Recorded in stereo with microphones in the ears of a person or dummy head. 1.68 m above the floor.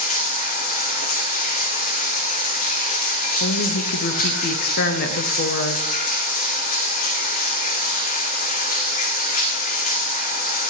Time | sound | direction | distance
0.0 | running water | 40° left (ahead or behind) | 2 m
3.4 | a woman speaking | 45° left (ahead or behind) | 0.9 m